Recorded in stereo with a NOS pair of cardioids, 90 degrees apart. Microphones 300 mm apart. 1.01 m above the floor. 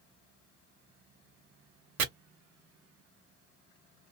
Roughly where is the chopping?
Ahead right.